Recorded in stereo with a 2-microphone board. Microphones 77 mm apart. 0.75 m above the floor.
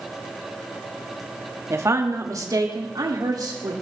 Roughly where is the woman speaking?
Right.